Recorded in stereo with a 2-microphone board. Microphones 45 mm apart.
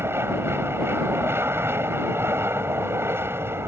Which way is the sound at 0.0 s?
65° right (ahead or behind).